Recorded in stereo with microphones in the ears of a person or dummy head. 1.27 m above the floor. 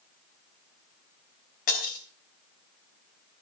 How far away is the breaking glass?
About 3 m.